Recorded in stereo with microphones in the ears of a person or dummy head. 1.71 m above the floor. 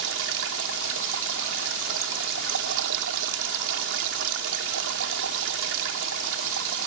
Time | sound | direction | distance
0.0 | running water | 70° right (ahead or behind) | ?